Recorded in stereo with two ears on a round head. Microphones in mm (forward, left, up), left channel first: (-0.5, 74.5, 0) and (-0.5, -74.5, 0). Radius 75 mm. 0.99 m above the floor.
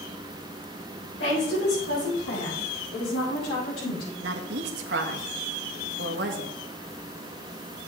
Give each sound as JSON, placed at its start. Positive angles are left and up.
{"t": 1.2, "sound": "a woman speaking", "side_deg": 75, "distance_m": 4.0}
{"t": 4.2, "sound": "a woman speaking", "side_deg": -70, "distance_m": 1.3}